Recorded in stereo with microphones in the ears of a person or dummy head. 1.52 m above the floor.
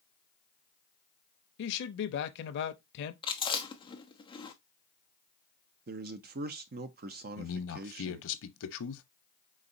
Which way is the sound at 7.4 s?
70° left (ahead or behind).